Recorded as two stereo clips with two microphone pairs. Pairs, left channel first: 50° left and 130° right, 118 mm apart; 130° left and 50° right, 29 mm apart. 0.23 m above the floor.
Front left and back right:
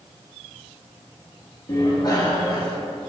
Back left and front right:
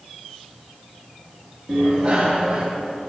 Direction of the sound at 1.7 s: 5° right.